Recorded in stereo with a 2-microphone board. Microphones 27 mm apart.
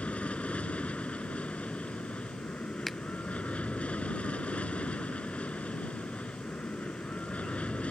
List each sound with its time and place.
0.0 s an aircraft: 60° left (ahead or behind)
2.9 s a finger snap: 5° left (ahead or behind)